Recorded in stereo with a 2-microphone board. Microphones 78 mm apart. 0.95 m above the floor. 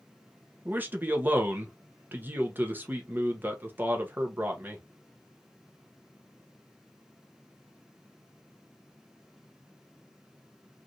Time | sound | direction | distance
0.7 | a man speaking | 25° right (ahead or behind) | 0.8 m